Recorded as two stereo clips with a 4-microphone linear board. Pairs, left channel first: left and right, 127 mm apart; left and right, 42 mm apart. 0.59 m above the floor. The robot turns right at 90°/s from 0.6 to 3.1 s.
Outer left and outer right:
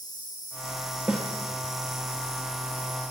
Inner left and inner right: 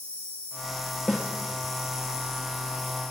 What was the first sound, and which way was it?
An insect, 150° left.